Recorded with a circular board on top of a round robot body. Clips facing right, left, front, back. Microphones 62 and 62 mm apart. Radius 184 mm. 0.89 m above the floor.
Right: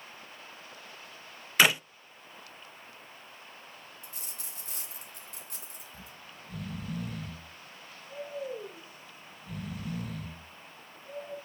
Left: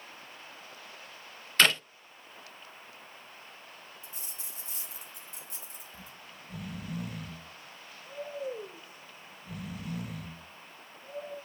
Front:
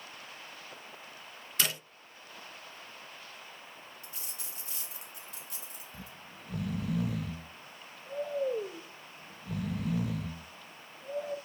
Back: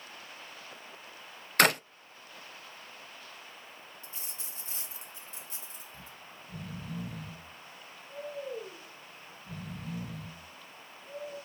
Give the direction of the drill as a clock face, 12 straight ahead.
I don't hear a drill.